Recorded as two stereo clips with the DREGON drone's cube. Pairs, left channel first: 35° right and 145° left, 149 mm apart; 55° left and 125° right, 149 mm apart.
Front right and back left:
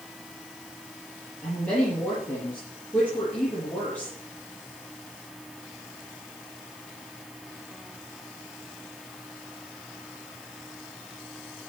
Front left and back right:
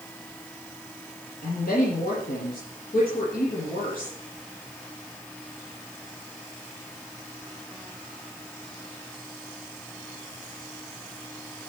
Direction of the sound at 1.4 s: 45° left.